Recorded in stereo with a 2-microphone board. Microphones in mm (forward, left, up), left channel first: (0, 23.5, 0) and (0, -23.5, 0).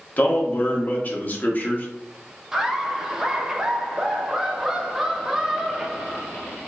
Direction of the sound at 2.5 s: 10° right (ahead or behind).